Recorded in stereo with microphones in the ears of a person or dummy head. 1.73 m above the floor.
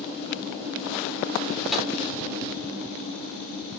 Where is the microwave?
Centre (ahead or behind), 4.5 m.